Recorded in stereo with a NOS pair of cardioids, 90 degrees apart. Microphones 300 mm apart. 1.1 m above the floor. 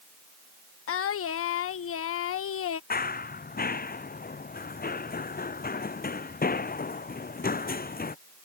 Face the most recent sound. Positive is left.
turn(degrees=30)